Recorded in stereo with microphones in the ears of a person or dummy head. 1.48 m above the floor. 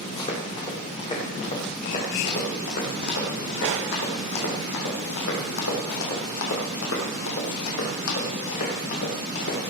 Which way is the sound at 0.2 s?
25° left (ahead or behind).